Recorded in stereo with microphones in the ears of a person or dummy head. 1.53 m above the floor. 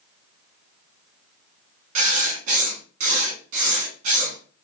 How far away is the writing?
About 1.2 m.